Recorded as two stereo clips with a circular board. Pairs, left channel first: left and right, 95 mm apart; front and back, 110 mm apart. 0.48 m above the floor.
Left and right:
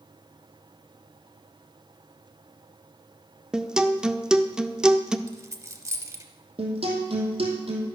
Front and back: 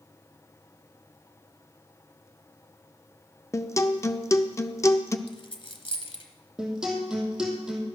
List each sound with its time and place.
3.5 s a guitar: 20° right, 0.6 m
5.3 s a dropped coin: 35° right, 1.2 m
6.6 s a guitar: 95° right, 2.5 m